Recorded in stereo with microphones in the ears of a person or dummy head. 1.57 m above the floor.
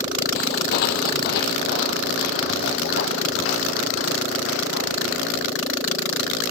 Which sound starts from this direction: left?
Footsteps, at 0.3 s.